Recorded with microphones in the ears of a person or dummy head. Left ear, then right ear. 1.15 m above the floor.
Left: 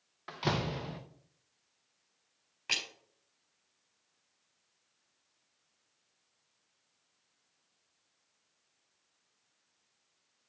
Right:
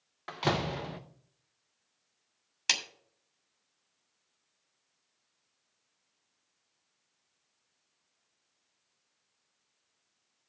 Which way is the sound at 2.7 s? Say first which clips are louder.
Right 4 dB; 80° right.